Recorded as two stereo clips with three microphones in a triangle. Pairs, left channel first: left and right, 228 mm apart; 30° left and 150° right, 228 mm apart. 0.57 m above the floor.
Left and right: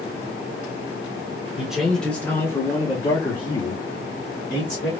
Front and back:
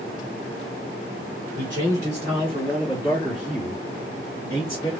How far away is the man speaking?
About 1.4 m.